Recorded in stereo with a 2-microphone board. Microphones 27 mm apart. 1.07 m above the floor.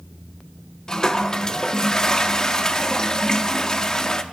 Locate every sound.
0.9 s a toilet flushing: 25° left (ahead or behind), 0.6 m